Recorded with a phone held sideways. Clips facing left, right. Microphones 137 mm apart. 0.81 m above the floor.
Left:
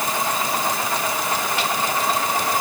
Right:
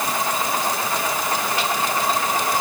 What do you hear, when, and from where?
Only background noise.